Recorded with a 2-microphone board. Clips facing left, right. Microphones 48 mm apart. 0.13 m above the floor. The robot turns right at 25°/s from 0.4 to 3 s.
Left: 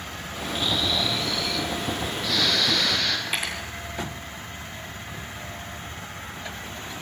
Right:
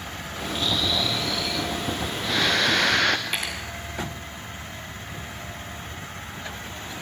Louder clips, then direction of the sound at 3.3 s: Left 1 dB; 5° left (ahead or behind).